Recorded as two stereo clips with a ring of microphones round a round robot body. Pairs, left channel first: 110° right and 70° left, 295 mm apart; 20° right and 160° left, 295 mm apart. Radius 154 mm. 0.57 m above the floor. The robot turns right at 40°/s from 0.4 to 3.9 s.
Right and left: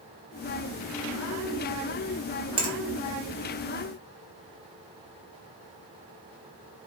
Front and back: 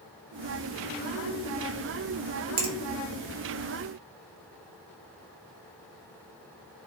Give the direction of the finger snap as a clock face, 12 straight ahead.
7 o'clock.